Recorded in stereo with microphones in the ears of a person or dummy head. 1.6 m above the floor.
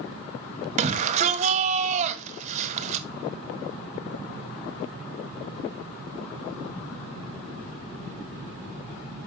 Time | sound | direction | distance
0.8 | a shout | 35° right (ahead or behind) | 1.3 m